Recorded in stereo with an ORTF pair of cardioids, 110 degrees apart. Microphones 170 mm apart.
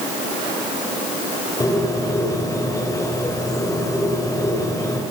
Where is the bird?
20° left, 5.5 m.